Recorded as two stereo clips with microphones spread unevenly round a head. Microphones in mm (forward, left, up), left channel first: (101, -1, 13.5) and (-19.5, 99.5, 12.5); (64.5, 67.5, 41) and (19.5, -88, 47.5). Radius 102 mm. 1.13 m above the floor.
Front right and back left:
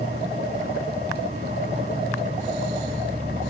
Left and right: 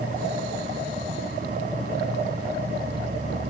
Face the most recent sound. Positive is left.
turn(degrees=-160)